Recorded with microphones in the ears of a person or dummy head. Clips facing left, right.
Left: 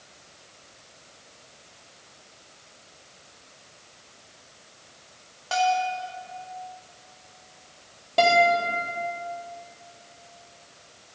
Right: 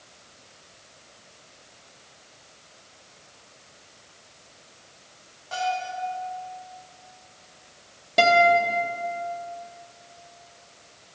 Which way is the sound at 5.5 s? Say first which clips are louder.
Left 5 dB; 75° left (ahead or behind).